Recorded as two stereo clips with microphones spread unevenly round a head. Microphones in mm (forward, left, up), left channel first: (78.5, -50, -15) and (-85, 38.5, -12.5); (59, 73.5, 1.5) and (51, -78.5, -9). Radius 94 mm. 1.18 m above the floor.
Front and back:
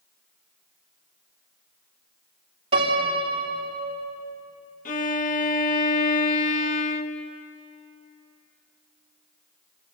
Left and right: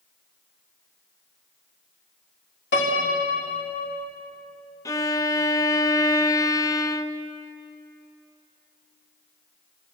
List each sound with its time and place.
2.7 s a piano: 90° left, 3 m
4.8 s a violin: 20° left, 0.9 m